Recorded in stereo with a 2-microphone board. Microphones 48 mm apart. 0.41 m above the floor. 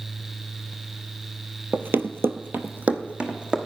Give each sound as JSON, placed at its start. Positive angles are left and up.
{"t": 1.7, "sound": "running footsteps", "side_deg": -40, "distance_m": 0.7}